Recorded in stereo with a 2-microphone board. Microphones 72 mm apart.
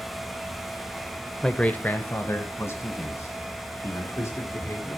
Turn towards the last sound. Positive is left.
turn(degrees=45)  # may be behind; listen again after turning